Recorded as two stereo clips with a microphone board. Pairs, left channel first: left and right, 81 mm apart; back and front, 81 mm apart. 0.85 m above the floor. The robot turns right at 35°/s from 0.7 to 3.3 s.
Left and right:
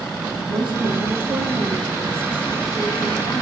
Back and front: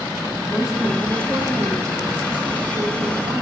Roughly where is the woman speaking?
Right.